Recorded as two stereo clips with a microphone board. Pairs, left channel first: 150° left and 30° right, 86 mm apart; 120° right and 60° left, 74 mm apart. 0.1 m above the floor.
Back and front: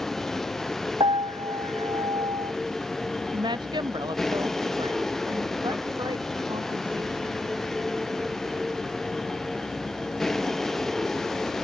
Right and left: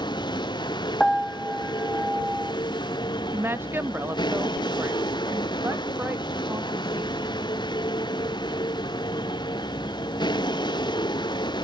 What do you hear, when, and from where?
0.0 s a vehicle: 125° right
1.0 s a piano: 35° right
3.3 s a woman speaking: straight ahead